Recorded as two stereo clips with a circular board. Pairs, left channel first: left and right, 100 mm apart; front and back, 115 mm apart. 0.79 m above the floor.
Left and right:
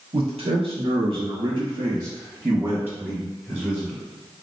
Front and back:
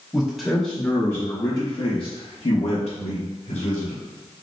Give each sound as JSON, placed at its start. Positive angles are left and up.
{"t": 0.1, "sound": "a man speaking", "azimuth_deg": -95, "distance_m": 1.1}